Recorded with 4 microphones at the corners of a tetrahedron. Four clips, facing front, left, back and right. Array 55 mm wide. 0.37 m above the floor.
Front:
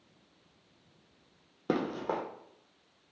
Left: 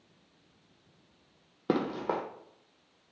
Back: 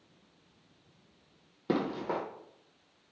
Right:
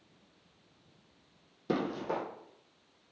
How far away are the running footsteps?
About 0.8 m.